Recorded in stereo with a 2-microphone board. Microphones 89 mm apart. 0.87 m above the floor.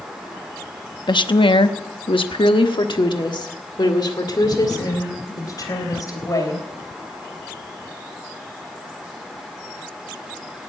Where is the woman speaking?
55° left (ahead or behind), 0.9 m; by 6.6 s 40° left (ahead or behind), 3.5 m.